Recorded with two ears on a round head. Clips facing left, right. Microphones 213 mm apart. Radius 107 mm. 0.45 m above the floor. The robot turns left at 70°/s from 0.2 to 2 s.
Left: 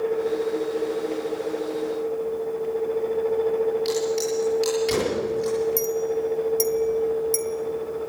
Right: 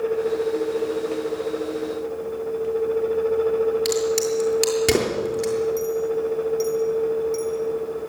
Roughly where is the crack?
Right.